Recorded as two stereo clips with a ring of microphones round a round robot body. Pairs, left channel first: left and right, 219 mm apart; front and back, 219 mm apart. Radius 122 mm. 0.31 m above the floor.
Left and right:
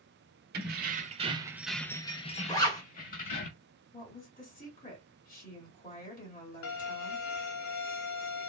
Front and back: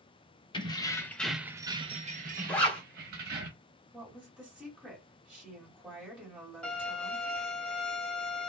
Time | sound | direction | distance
0.5 | keys jangling | 65° right | 0.8 m
2.5 | a zipper | 70° left | 1.2 m
3.9 | a woman speaking | 95° left | 1.7 m
6.6 | a violin | 85° left | 0.8 m